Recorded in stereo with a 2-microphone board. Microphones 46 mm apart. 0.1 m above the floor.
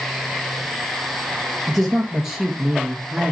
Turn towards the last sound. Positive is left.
turn(degrees=-30)  # may be behind; listen again after turning